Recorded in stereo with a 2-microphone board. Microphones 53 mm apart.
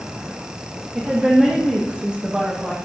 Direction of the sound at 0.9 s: 30° right (ahead or behind).